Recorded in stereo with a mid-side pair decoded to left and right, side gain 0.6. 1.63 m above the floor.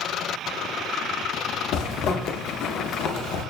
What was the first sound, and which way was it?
A zipper, 65° left.